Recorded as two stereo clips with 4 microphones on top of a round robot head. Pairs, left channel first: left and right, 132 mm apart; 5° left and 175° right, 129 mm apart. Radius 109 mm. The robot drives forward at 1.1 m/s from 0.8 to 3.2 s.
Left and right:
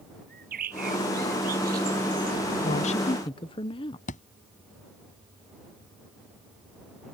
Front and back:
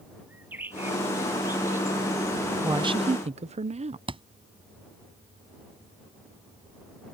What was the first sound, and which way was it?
A bird, 95° right.